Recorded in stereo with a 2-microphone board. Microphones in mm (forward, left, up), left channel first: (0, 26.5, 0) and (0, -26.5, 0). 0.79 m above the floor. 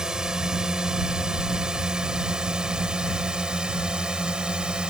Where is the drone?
15° right (ahead or behind).